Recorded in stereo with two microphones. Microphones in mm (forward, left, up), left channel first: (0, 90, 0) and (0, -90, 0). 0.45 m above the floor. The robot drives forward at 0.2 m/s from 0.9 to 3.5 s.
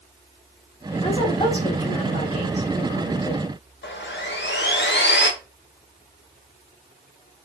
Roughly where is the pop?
No pop in this recording.